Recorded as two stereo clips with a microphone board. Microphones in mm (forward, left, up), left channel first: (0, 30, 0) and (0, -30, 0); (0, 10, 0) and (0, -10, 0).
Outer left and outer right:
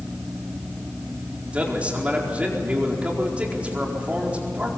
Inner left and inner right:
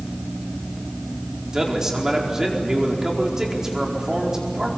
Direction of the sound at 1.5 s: 20° right (ahead or behind).